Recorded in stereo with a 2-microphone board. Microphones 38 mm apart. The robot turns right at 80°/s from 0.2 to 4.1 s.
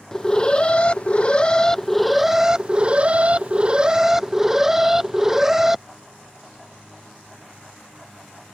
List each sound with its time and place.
0.1 s an alarm: 30° left; by 5.8 s 20° right